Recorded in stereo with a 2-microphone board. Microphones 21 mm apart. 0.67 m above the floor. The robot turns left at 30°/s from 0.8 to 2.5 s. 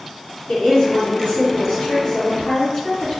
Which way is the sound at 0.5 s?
110° left.